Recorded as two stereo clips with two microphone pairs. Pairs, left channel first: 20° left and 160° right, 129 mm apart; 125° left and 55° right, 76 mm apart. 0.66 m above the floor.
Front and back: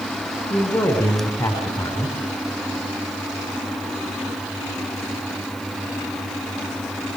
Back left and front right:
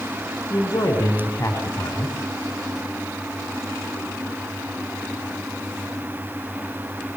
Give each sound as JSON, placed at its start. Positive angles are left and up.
{"t": 0.5, "sound": "a man speaking", "azimuth_deg": 75, "distance_m": 5.0}